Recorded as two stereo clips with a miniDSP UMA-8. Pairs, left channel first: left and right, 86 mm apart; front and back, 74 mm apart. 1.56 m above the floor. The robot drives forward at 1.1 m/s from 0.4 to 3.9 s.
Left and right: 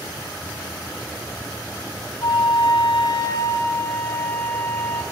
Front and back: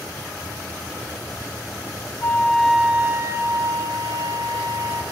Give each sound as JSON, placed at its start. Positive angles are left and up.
{"t": 2.2, "sound": "a flute", "azimuth_deg": 55, "distance_m": 0.9}